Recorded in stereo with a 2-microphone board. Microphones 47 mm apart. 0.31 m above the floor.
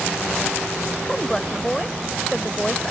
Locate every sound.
1.1 s a woman speaking: 10° left (ahead or behind)